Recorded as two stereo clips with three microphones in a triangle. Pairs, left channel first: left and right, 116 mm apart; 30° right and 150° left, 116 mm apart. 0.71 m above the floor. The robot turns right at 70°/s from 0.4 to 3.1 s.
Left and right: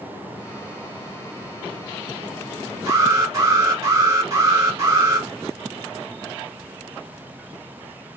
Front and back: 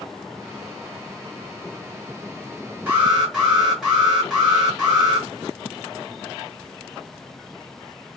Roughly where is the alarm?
Behind right.